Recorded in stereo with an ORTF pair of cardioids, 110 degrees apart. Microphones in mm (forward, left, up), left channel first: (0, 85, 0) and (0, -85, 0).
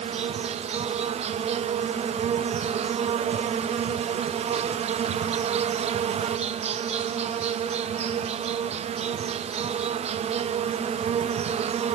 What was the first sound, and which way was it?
An insect, 45° right.